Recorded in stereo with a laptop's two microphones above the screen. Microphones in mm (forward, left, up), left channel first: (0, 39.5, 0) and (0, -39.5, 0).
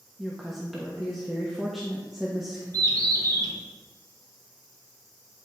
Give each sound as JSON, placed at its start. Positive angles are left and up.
{"t": 0.2, "sound": "a woman speaking", "side_deg": -5, "distance_m": 1.3}
{"t": 2.7, "sound": "a bird", "side_deg": -50, "distance_m": 1.7}